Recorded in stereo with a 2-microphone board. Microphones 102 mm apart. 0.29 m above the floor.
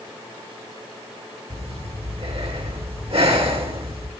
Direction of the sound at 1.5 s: 70° right (ahead or behind).